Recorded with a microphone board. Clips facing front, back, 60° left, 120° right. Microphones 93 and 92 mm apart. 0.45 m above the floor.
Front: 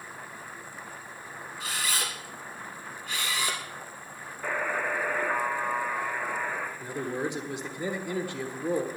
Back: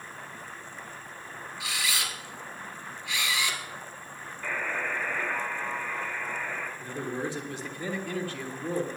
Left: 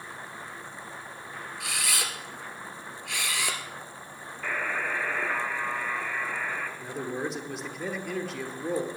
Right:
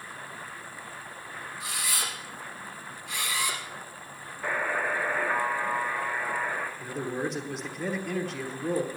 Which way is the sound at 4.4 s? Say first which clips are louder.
Front 3 dB, right 2 dB; 55° right.